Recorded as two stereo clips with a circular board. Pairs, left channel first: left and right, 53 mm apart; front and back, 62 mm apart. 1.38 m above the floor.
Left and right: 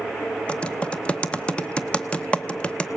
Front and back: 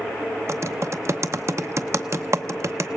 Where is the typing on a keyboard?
155° left, 0.8 m.